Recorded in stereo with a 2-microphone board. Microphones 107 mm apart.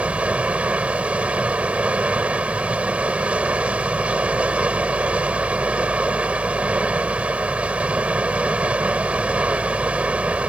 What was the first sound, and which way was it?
Running water, 15° right (ahead or behind).